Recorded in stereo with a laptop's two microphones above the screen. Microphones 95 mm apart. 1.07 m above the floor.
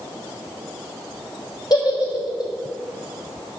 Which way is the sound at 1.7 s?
40° left (ahead or behind).